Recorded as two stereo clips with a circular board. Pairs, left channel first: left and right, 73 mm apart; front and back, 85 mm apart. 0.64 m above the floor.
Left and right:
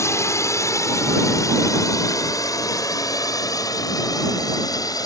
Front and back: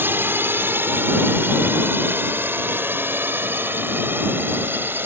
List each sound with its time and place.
0.0 s a drone: 125° left; by 5.1 s 115° left